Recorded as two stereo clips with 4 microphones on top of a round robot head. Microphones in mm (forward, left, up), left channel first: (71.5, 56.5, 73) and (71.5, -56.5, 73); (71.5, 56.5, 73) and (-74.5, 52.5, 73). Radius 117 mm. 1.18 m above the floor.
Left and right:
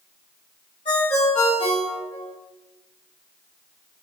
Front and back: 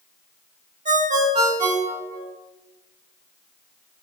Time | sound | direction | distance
0.8 | a ringtone | 145° left | 1.7 m